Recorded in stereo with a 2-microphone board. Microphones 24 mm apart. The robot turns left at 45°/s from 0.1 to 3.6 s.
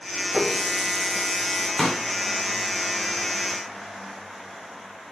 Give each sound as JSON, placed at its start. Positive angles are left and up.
{"t": 0.3, "sound": "a running tap", "azimuth_deg": 0, "distance_m": 2.5}
{"t": 1.8, "sound": "a pop", "side_deg": 5, "distance_m": 2.5}